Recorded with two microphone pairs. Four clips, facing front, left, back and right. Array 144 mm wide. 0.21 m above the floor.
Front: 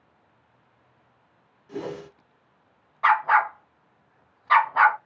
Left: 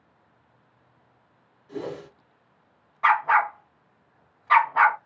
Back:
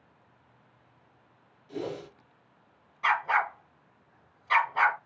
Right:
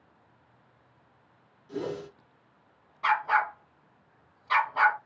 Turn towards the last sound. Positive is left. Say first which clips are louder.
# left 5 dB, front 7 dB
turn(degrees=40)